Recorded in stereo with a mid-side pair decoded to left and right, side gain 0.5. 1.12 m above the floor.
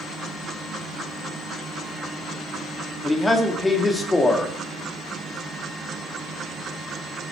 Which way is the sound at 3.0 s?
10° left.